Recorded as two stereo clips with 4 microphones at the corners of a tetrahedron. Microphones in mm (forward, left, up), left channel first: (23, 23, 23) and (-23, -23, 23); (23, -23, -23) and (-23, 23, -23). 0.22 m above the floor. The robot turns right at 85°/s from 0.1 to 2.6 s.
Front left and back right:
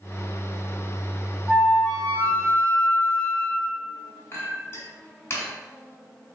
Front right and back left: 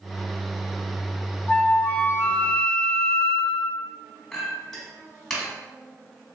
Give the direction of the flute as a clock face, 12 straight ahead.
2 o'clock.